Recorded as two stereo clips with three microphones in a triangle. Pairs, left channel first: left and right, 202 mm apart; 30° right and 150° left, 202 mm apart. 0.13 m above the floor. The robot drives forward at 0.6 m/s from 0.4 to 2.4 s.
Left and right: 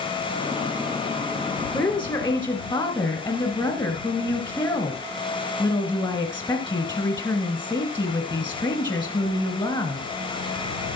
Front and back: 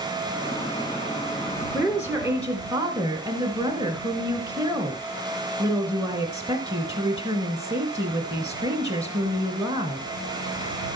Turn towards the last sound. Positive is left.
turn(degrees=105)